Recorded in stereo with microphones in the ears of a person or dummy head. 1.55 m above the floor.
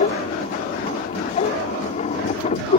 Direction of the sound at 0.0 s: 40° left (ahead or behind).